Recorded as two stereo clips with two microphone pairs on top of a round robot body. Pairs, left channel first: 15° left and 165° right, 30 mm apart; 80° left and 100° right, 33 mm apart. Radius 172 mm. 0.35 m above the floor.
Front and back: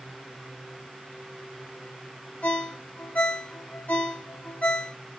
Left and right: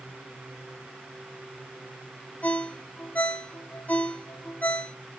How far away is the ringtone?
About 1.2 m.